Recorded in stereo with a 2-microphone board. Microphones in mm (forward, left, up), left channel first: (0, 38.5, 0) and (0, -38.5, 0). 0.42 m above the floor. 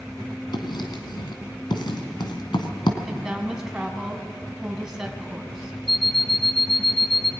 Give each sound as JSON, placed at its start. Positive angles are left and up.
{"t": 0.5, "sound": "writing", "side_deg": 75, "distance_m": 2.5}
{"t": 3.0, "sound": "a woman speaking", "side_deg": -5, "distance_m": 3.0}
{"t": 5.9, "sound": "an alarm clock", "side_deg": 0, "distance_m": 0.9}